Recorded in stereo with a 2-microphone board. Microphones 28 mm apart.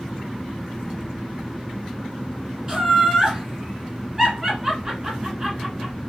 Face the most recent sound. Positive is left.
turn(degrees=-20)  # may be behind; listen again after turning